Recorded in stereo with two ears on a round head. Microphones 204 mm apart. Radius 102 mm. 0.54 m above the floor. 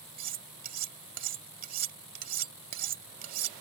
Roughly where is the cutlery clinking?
Right.